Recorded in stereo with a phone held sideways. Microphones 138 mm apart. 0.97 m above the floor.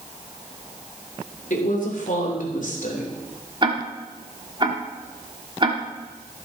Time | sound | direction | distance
1.5 | a woman speaking | 70° left (ahead or behind) | 3 m
3.6 | ticking | 35° right (ahead or behind) | 1.4 m